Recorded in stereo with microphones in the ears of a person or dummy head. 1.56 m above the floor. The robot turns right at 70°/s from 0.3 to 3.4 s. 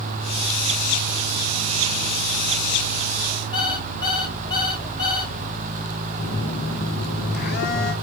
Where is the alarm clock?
30° left (ahead or behind), 2 m.